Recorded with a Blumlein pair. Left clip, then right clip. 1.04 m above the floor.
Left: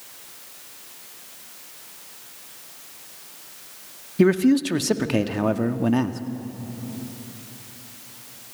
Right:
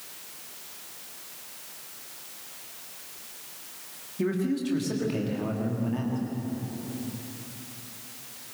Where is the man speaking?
60° left, 1.7 m.